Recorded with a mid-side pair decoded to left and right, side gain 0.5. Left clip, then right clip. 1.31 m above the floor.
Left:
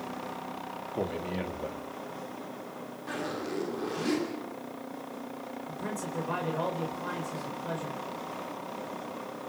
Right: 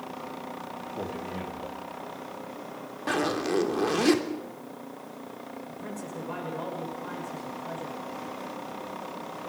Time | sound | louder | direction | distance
0.9 | a man speaking | left 3 dB | 30° left | 3 m
3.1 | a zipper | right 8 dB | 60° right | 3 m
5.7 | a man speaking | left 4 dB | 30° left | 6.5 m